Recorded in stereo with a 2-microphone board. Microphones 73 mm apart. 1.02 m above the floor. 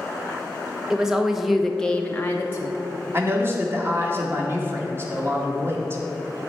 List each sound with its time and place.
0.9 s a woman speaking: 10° right (ahead or behind), 1.0 m; by 2.8 s 25° left (ahead or behind), 0.7 m
3.1 s a man speaking: 35° right (ahead or behind), 1.5 m